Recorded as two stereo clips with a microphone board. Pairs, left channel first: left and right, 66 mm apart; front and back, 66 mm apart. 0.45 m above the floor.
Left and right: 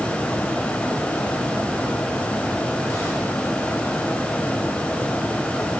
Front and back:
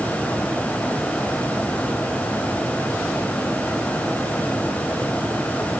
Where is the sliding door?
I don't hear a sliding door.